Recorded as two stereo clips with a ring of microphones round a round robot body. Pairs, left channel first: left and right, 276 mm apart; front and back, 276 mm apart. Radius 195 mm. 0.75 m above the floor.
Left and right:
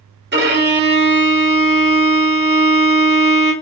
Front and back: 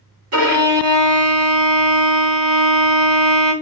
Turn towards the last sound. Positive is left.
turn(degrees=-140)